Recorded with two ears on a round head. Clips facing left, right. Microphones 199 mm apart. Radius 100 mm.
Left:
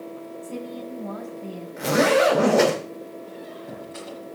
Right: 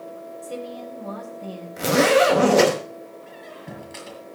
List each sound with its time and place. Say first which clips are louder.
0.4 s a woman speaking: right 1 dB; 70° right (ahead or behind), 4.5 m; by 1.7 s 60° right (ahead or behind), 5 m
1.8 s a zipper: right 2 dB; 50° right (ahead or behind), 4.5 m
3.3 s a squeak: left 3 dB; 70° right (ahead or behind), 7 m